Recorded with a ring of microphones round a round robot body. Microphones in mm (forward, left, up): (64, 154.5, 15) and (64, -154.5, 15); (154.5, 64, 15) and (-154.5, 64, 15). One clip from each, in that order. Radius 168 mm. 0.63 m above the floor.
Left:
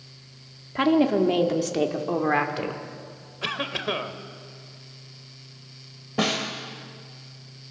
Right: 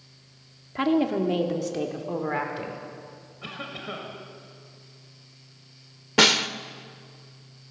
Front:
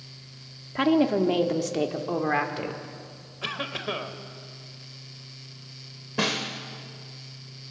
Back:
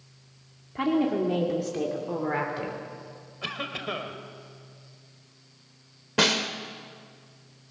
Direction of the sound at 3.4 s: 70° left.